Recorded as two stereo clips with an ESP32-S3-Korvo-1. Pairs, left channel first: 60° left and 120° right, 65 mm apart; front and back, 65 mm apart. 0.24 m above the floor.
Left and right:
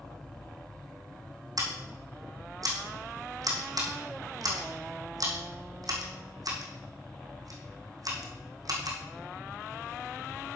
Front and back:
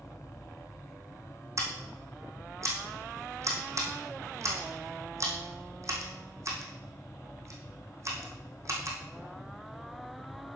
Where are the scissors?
140° right, 2.5 m.